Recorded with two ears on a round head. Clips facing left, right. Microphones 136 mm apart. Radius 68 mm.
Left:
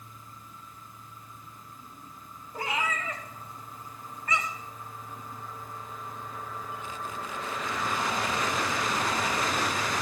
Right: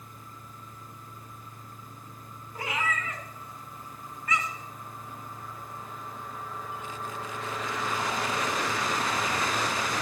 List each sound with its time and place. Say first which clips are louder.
2.5 s a cat meowing: left 1 dB; 30° left (ahead or behind), 3 m